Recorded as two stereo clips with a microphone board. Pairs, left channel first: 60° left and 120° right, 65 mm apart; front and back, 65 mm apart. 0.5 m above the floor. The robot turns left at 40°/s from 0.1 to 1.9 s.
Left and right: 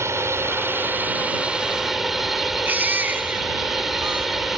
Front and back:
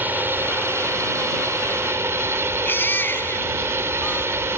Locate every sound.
0.0 s a drone: 135° right; by 4.6 s 155° left
2.6 s a baby crying: 60° right